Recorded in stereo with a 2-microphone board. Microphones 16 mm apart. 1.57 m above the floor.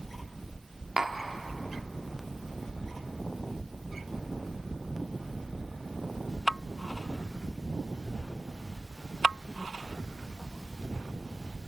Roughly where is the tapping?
Right.